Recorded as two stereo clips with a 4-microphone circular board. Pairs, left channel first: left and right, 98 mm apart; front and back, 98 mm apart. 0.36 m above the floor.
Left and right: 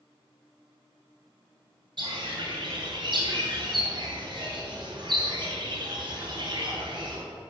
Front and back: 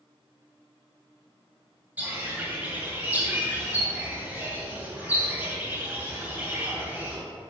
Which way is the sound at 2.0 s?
110° right.